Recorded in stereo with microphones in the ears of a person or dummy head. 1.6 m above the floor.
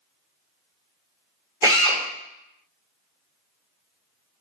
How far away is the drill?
About 4 m.